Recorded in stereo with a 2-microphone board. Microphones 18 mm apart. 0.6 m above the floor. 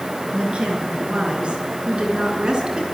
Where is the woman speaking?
75° right (ahead or behind), 9.5 m; by 2.8 s 55° right (ahead or behind), 7 m.